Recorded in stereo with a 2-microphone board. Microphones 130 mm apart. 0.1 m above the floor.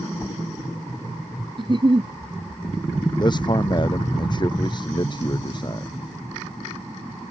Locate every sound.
1.6 s a giggle: 40° right (ahead or behind)
3.2 s a man speaking: 35° left (ahead or behind)